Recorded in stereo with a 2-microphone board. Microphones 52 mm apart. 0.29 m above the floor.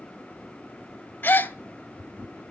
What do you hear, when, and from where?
1.2 s a gasp: 45° left (ahead or behind), 0.6 m